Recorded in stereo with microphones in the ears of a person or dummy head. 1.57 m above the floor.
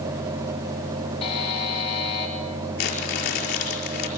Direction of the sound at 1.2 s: 40° left (ahead or behind).